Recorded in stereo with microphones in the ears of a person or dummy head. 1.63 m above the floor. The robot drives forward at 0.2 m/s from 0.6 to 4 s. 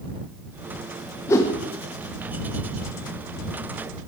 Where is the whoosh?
15° left (ahead or behind), 0.5 m.